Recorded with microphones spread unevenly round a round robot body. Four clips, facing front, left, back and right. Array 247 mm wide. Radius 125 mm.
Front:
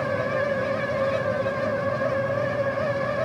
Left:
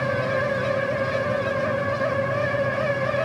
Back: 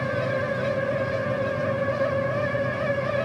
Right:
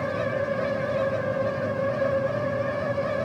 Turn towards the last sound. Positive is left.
No sound to turn to.